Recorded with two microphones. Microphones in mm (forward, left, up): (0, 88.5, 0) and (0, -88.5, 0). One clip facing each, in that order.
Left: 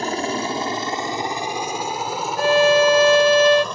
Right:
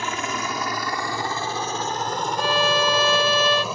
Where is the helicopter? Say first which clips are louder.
Left 5 dB; 40° left (ahead or behind); by 3.8 s 5° right (ahead or behind).